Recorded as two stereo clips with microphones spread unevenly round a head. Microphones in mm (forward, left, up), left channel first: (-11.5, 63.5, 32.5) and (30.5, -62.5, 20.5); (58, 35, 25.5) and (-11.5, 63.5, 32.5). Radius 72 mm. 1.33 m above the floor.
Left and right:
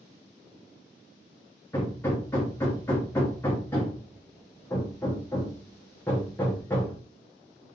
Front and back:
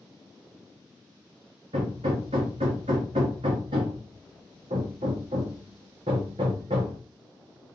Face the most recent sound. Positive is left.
turn(degrees=-175)